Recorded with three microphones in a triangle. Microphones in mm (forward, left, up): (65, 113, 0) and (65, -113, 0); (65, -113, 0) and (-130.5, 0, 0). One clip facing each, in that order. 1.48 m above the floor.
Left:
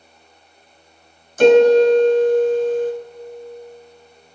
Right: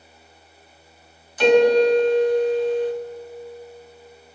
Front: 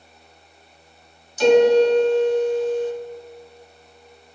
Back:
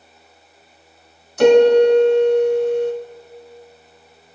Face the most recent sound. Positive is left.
turn(degrees=130)